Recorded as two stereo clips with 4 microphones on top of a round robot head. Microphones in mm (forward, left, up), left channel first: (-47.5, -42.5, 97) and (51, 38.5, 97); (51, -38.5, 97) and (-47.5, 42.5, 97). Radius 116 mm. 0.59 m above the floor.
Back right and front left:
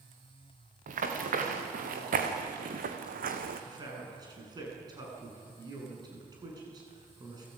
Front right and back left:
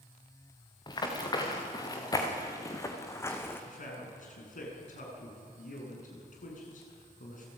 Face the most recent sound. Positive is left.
turn(degrees=-20)